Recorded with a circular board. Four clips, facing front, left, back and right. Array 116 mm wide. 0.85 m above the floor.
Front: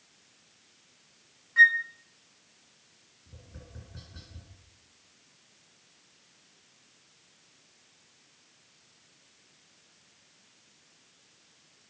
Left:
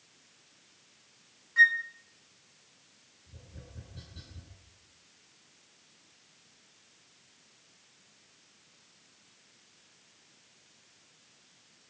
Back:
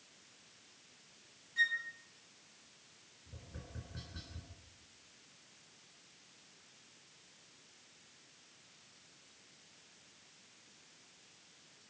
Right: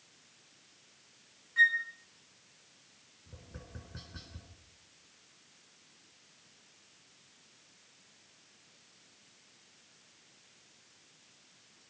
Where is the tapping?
90° right, 8 m.